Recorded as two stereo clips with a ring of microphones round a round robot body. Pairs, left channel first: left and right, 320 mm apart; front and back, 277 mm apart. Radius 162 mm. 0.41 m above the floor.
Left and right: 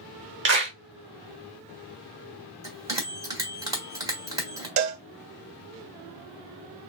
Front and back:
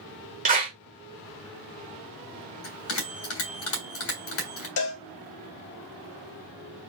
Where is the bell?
15° right, 1.8 m.